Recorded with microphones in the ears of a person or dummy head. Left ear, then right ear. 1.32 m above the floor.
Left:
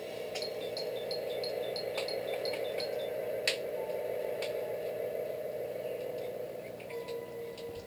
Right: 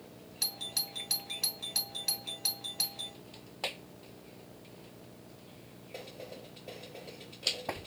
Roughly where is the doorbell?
Right.